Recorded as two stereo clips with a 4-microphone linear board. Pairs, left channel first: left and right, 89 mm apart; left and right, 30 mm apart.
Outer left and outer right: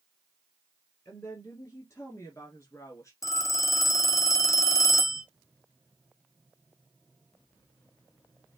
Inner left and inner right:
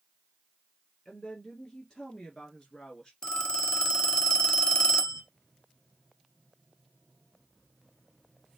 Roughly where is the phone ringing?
Left.